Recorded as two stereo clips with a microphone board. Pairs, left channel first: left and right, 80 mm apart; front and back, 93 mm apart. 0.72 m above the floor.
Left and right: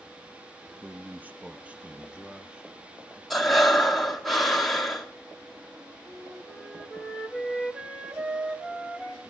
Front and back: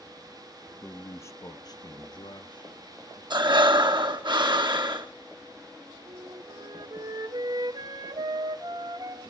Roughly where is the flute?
Behind.